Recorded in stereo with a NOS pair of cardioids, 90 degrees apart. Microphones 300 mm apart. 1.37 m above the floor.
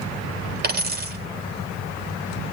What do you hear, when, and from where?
0.6 s a dropped coin: 35° right, 3 m